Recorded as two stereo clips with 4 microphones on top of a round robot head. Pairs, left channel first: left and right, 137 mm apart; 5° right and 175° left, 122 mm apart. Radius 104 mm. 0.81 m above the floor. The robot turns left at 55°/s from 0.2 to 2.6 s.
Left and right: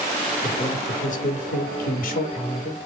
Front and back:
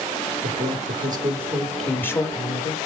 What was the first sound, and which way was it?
A man speaking, 155° left.